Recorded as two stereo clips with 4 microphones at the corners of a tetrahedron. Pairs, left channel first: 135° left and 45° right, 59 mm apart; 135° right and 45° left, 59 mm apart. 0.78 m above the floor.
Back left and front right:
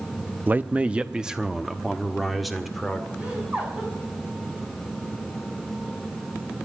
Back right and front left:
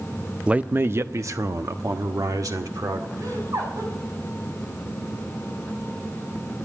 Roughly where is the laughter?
Ahead left.